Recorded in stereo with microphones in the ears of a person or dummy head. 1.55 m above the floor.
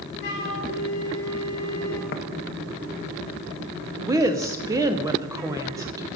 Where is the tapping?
45° left (ahead or behind), 0.6 m.